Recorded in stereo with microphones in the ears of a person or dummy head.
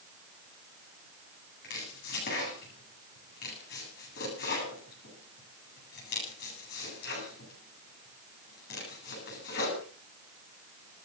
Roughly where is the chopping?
Left.